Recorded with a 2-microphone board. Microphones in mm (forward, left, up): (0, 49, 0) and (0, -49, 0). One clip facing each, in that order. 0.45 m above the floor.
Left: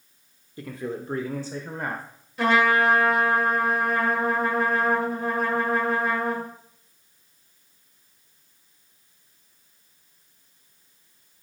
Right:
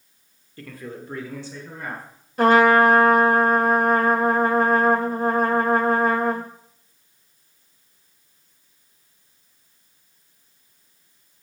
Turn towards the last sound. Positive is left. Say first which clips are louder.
# right 6 dB
turn(degrees=-45)  # may be behind; listen again after turning